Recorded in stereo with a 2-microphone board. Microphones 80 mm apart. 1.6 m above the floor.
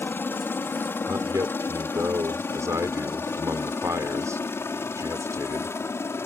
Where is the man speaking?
40° right (ahead or behind).